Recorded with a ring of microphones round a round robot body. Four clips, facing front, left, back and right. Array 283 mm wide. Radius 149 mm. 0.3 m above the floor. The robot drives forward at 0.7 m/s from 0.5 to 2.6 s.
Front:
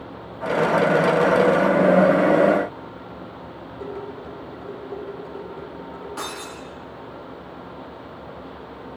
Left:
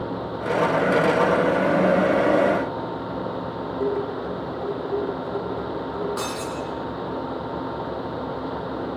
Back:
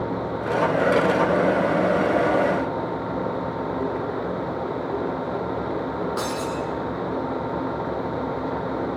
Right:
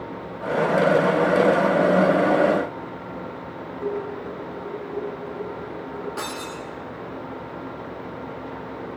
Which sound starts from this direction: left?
Dishes clattering, at 3.8 s.